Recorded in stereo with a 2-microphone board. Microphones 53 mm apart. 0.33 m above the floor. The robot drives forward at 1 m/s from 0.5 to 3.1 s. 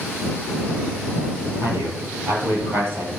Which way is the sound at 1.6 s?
65° right (ahead or behind).